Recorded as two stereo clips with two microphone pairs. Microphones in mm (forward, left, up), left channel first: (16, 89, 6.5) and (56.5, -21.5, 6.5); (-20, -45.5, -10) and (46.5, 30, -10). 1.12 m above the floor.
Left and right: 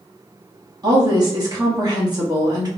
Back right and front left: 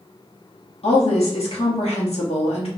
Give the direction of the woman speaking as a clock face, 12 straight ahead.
4 o'clock.